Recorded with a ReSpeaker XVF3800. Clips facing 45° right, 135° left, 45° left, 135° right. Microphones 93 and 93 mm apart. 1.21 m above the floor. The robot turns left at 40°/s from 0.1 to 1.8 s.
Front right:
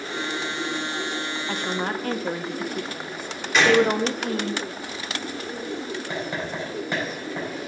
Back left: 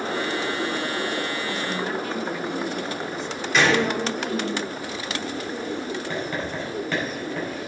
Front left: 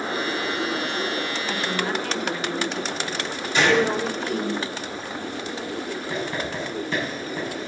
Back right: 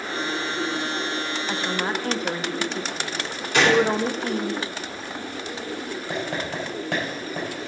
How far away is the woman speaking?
About 0.8 m.